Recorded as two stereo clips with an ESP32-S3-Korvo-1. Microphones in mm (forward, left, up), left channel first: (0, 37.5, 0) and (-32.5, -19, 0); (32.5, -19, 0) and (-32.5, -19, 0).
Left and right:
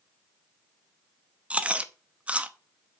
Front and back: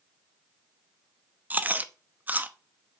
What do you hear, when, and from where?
1.5 s chewing: 165° right, 0.7 m